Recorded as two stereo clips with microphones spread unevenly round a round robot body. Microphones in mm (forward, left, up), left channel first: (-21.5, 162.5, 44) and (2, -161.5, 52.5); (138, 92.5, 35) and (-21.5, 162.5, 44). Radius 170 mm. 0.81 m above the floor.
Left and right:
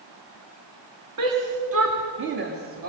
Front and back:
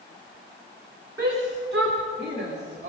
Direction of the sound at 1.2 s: 125° right.